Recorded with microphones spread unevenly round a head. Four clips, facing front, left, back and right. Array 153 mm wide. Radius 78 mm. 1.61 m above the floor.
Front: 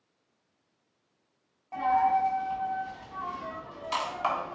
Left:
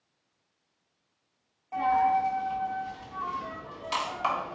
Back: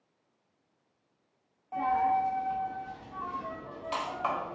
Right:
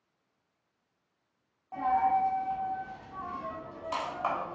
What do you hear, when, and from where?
1.7 s a dropped coin: 15° right, 1.0 m